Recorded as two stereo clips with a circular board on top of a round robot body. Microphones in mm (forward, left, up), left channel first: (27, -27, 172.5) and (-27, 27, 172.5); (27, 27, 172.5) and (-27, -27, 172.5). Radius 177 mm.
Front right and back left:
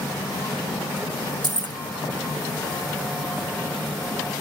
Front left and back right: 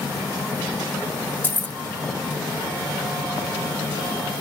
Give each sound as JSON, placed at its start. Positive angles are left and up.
{"t": 1.4, "sound": "keys jangling", "azimuth_deg": 110, "distance_m": 0.6}